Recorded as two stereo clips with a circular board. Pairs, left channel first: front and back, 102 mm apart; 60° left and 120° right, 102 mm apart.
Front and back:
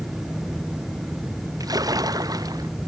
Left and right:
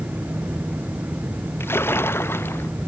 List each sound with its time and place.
1.6 s a splash: 125° left